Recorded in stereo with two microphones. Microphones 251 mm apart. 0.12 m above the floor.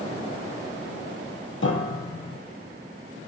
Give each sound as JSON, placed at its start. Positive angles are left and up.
{"t": 1.6, "sound": "a piano", "side_deg": 55, "distance_m": 0.8}